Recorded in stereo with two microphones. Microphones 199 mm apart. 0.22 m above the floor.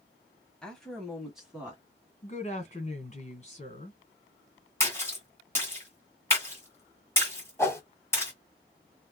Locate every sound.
0.6 s a woman speaking: 5° left (ahead or behind), 1.1 m; by 1.8 s 5° right (ahead or behind), 1.5 m
2.2 s a woman speaking: 35° left (ahead or behind), 1.8 m
4.8 s a splash: 10° left (ahead or behind), 1.9 m
7.6 s a whoosh: 15° left (ahead or behind), 0.9 m